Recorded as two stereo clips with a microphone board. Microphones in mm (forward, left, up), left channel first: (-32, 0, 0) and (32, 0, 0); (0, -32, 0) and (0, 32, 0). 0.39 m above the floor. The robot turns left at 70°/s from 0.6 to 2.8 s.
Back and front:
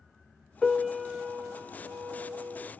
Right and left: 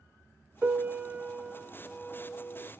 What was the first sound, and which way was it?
A piano, 95° left.